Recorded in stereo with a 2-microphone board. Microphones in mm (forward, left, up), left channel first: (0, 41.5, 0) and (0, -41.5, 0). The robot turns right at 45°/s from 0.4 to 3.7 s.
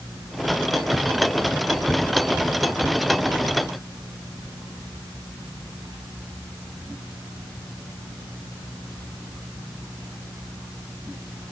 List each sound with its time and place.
Only background noise.